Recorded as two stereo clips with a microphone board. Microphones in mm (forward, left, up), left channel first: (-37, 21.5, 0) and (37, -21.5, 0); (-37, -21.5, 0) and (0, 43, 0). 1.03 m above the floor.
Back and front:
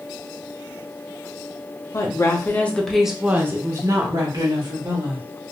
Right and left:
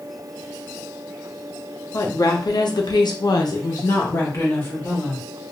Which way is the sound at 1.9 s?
160° right.